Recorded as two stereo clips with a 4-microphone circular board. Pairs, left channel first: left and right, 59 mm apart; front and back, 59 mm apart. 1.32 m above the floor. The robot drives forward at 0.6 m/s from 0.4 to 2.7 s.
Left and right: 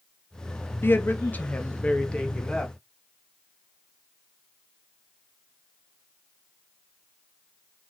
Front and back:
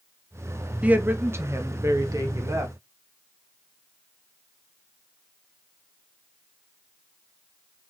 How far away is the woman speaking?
About 0.6 m.